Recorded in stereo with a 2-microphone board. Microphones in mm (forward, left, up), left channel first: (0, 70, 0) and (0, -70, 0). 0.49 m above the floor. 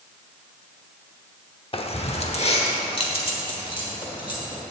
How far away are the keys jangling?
About 0.8 m.